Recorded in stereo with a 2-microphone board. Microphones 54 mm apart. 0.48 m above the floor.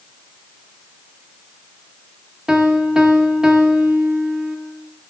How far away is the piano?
About 0.9 m.